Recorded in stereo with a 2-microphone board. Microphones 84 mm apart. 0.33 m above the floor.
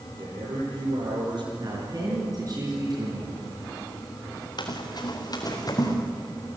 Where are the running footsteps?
60° left (ahead or behind), 3.5 m; by 6.0 s 45° left (ahead or behind), 3.5 m.